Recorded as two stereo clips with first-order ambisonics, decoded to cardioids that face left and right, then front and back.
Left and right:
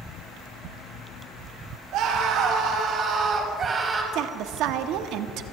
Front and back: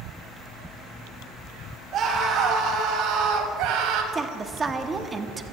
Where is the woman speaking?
110° right, 0.9 m.